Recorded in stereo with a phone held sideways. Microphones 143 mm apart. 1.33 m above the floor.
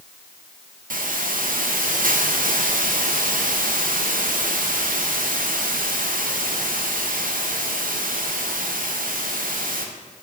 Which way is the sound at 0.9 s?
75° right (ahead or behind).